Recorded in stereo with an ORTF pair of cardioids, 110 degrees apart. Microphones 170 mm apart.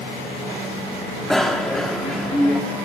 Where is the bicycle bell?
Straight ahead, 2 m.